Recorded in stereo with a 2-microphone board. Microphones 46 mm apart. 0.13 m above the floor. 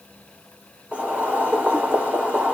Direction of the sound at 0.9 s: 25° right (ahead or behind).